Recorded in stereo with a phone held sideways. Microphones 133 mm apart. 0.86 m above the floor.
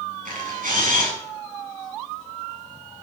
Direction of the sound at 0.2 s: 85° right.